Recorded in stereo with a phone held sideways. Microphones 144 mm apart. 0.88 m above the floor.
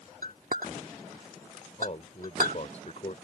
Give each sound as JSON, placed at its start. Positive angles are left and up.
{"t": 0.2, "sound": "a clink", "side_deg": -75}
{"t": 1.8, "sound": "a man speaking", "side_deg": 50}